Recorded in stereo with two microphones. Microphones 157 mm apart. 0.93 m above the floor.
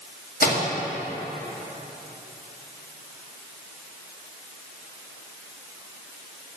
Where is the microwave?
65° left (ahead or behind), 1.8 m.